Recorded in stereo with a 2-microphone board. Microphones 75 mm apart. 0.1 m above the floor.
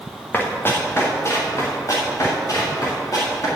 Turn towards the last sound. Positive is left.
turn(degrees=50)  # may be behind; listen again after turning